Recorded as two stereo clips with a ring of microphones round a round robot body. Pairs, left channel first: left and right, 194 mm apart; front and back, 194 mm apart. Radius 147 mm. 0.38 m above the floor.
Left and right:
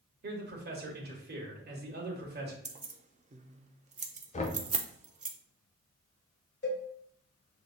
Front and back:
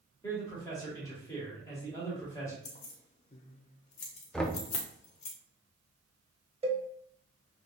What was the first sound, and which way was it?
A man speaking, 75° right.